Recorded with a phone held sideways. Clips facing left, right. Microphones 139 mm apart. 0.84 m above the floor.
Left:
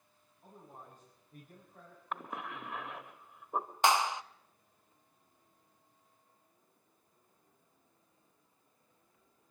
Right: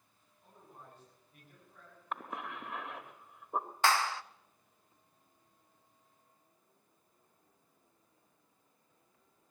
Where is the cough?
Centre (ahead or behind), 1.3 m.